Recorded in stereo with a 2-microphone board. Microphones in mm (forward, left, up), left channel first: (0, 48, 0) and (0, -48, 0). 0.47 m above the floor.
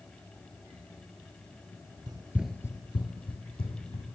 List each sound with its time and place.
2.1 s running footsteps: 50° right (ahead or behind), 0.8 m; by 4.2 s 80° left, 2.5 m